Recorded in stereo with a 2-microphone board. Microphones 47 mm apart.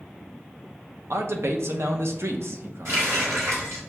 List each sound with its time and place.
1.1 s a man speaking: 70° right (ahead or behind), 0.6 m
2.9 s a running tap: 75° right (ahead or behind), 1.8 m